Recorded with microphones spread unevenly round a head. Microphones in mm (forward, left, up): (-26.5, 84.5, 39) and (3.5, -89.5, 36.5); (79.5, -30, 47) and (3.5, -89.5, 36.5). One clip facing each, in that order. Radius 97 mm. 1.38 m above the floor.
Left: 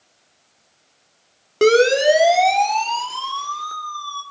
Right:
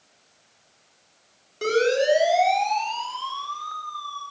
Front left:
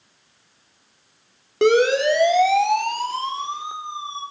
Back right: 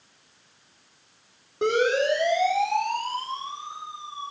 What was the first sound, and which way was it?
A siren, 80° left.